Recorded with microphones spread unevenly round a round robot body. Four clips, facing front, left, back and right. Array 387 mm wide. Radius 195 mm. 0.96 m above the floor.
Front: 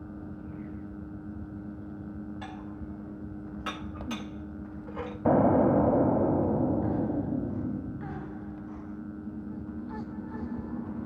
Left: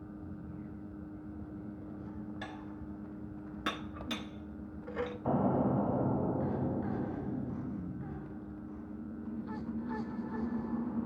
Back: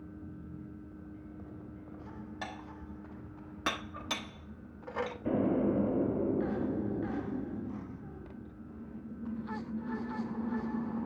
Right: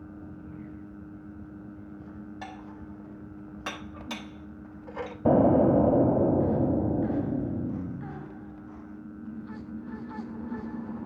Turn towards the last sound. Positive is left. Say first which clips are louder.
# right 11 dB, front 8 dB
turn(degrees=-65)